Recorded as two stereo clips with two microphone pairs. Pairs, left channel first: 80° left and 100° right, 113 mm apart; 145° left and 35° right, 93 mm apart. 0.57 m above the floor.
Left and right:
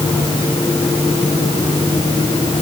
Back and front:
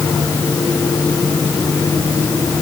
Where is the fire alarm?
No fire alarm in this recording.